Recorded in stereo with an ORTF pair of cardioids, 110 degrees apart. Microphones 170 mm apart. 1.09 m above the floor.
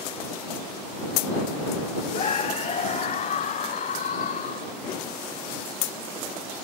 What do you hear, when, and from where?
2.1 s a scream: 40° left; by 4.7 s 50° left